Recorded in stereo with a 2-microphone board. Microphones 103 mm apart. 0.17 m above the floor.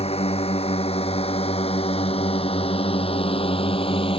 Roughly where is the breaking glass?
No breaking glass in this recording.